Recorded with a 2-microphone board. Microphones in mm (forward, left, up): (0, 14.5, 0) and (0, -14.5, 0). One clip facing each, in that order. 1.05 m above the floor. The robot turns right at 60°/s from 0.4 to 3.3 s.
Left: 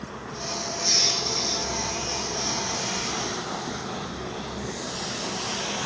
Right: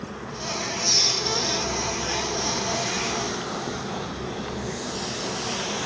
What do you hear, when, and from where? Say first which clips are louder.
0.8 s a squeak: even; 80° right, 1.2 m; by 1.6 s 30° right, 1.2 m